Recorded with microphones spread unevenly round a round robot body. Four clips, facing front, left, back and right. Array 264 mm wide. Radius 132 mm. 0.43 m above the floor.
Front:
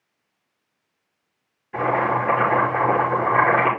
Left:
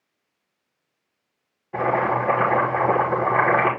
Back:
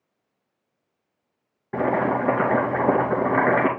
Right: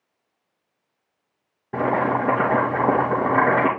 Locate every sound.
1.7 s boiling: 120° right, 3 m